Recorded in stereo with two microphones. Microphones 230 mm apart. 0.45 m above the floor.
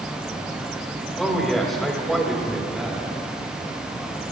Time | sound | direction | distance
1.2 | a man speaking | centre (ahead or behind) | 2.5 m